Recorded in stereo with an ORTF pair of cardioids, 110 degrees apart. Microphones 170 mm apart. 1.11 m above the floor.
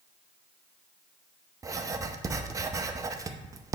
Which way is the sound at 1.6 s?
20° right.